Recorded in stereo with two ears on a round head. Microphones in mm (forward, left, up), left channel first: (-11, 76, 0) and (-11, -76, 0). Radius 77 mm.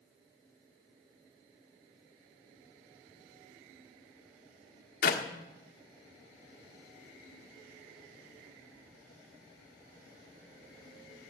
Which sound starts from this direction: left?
A clap, at 5.0 s.